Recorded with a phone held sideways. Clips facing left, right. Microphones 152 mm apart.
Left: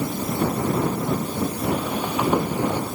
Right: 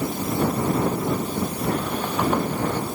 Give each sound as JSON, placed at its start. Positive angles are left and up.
{"t": 1.6, "sound": "footsteps", "side_deg": 5}